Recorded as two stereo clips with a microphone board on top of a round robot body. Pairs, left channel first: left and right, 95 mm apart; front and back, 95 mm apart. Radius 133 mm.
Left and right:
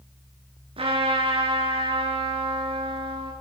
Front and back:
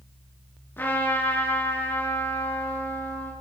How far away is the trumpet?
About 8.5 m.